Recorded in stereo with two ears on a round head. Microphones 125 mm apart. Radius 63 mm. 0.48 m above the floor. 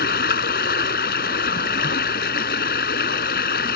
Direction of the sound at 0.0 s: 75° left (ahead or behind).